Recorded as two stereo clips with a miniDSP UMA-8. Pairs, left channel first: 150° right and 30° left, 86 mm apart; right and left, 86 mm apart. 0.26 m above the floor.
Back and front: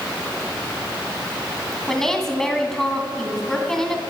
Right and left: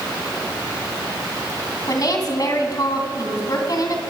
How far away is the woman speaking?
About 2.5 m.